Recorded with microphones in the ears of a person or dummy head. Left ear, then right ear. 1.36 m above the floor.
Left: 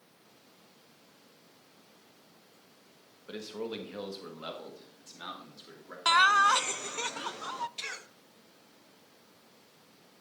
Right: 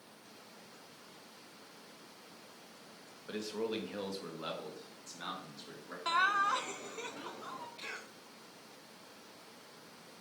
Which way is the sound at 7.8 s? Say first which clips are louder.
Left 5 dB; 85° left.